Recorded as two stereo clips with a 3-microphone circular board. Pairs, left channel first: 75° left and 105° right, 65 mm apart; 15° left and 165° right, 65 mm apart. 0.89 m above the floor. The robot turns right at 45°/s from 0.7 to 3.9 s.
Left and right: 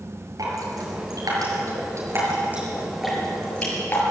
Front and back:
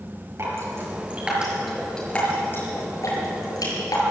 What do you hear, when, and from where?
0.4 s dripping: 120° right, 6 m; by 4.1 s 25° left, 6 m